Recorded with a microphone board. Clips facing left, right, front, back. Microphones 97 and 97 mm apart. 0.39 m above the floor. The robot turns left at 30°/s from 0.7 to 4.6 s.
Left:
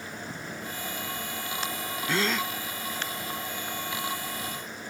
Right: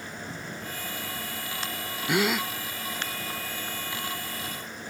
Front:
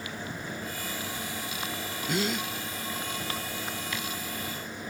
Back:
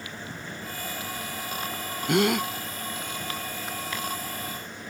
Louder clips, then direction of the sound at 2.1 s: Right 3 dB, back 7 dB; 160° right.